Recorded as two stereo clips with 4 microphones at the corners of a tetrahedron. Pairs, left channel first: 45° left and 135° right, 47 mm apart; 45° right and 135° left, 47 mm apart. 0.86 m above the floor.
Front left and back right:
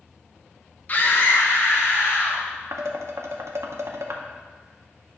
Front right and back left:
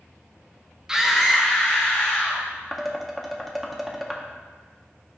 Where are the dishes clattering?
135° right, 0.7 m.